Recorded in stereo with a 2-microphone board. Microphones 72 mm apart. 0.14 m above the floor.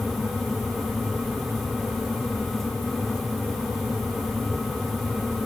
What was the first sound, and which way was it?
Only background noise.